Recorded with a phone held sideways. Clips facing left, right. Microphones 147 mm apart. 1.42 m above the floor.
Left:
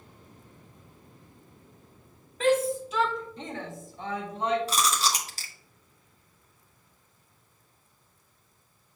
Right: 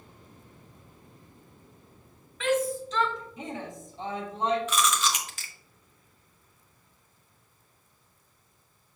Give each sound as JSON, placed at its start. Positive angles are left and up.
{"t": 2.4, "sound": "a shout", "side_deg": 40, "distance_m": 1.5}
{"t": 4.7, "sound": "chewing", "side_deg": 35, "distance_m": 1.1}